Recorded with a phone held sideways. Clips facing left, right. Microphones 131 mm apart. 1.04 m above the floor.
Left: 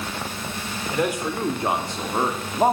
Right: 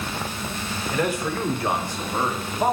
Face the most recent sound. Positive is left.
turn(degrees=30)  # may be behind; listen again after turning